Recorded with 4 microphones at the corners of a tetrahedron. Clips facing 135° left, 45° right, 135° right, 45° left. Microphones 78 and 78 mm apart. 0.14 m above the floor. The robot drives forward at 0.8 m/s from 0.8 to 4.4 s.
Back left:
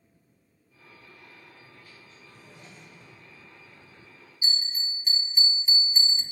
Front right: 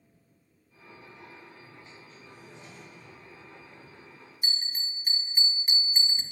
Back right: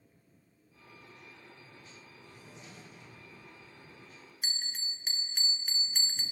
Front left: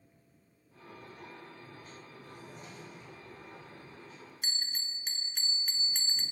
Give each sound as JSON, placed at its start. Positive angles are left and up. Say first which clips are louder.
{"t": 2.2, "sound": "a drawer", "louder": "front right 1 dB, front left 3 dB", "azimuth_deg": 85, "distance_m": 3.5}
{"t": 4.4, "sound": "a bell", "louder": "back left 3 dB, even", "azimuth_deg": -45, "distance_m": 0.6}